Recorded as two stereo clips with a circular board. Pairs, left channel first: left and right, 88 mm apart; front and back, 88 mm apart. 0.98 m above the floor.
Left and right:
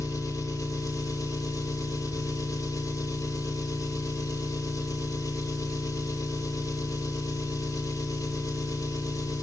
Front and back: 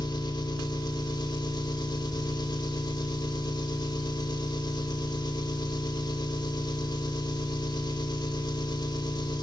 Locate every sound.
0.0 s an engine running: 40° left, 3 m